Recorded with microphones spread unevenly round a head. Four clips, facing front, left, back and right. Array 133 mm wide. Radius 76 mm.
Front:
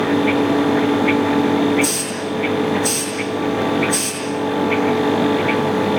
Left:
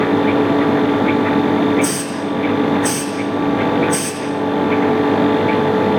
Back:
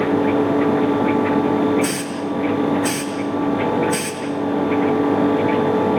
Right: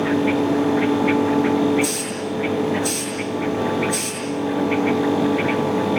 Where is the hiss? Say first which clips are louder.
Left 5 dB, even; 105° left, 7 m.